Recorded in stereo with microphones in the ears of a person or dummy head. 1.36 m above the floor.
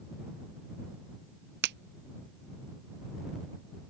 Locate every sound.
1.6 s a finger snap: 60° right (ahead or behind)